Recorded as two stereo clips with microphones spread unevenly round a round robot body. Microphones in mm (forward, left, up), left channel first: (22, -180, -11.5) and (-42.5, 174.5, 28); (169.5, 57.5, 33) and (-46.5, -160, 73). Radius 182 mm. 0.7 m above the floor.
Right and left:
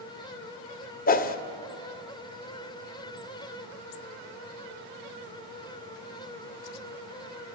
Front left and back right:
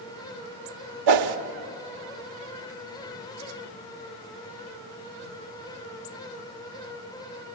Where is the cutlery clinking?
No cutlery clinking in this recording.